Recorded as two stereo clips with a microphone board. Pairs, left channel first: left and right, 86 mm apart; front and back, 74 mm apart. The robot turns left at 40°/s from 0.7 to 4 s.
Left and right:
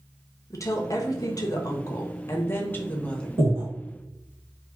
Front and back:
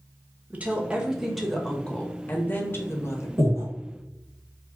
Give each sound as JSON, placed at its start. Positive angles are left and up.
{"t": 0.5, "sound": "a woman speaking", "azimuth_deg": 115, "distance_m": 0.6}
{"t": 3.4, "sound": "breathing", "azimuth_deg": -140, "distance_m": 1.5}